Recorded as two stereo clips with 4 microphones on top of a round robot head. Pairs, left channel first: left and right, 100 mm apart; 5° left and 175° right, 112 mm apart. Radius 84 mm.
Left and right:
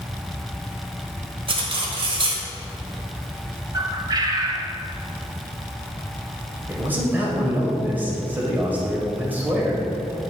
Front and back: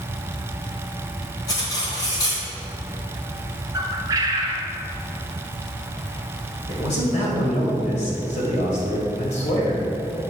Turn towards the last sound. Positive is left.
turn(degrees=-20)